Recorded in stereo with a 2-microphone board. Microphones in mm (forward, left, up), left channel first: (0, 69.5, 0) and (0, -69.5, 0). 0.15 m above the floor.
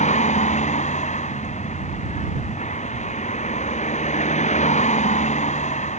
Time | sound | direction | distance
0.0 | a vehicle | 55° left (ahead or behind) | ?